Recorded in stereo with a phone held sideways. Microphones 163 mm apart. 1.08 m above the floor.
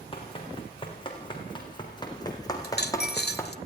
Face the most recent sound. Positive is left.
turn(degrees=70)  # may be behind; listen again after turning